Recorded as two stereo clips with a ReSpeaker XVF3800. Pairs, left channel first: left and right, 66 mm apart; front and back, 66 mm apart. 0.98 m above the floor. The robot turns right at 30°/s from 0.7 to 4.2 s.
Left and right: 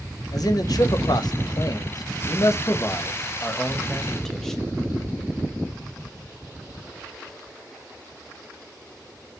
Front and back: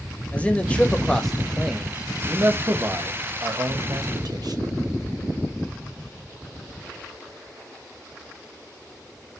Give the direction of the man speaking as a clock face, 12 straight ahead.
10 o'clock.